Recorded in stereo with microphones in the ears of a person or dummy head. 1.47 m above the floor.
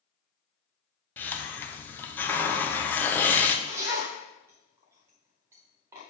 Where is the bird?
No bird in this recording.